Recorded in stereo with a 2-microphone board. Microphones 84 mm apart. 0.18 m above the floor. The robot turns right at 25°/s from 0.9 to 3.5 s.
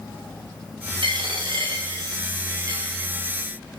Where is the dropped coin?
85° right, 5 m; by 3.1 s 30° right (ahead or behind), 5 m.